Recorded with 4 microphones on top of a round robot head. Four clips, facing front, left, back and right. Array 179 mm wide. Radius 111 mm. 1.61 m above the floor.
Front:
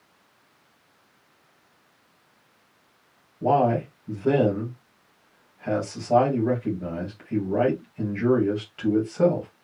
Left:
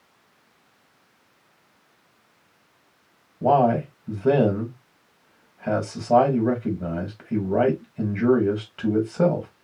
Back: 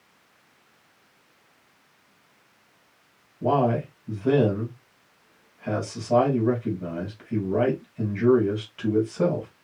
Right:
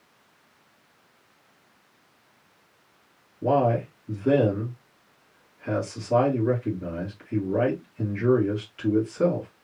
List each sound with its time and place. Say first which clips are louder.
3.4 s a man speaking: left 4 dB, front 2 dB; 80° left, 3 m